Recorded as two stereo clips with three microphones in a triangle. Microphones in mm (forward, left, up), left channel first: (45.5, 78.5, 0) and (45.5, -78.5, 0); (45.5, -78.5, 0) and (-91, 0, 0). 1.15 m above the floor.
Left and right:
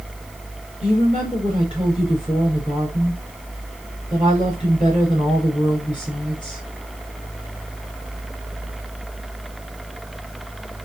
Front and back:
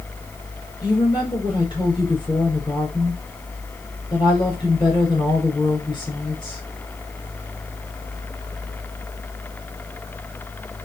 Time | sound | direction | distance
0.8 | a woman speaking | 30° left | 4.5 m